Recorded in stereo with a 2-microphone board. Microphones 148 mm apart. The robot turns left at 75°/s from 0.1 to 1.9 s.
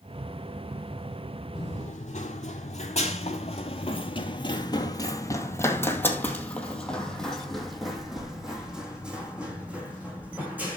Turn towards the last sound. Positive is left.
turn(degrees=-10)  # may be behind; listen again after turning